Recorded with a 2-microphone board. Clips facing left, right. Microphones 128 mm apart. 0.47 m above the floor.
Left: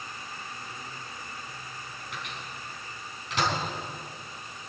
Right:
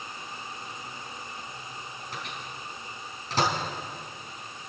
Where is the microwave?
35° right (ahead or behind), 4.5 m.